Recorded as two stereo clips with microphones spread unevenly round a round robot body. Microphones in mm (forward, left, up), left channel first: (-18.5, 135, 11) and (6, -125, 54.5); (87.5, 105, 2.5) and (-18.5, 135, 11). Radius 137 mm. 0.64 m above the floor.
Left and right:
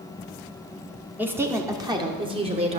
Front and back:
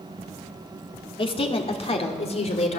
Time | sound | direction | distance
1.2 | a woman speaking | 5° left | 1.9 m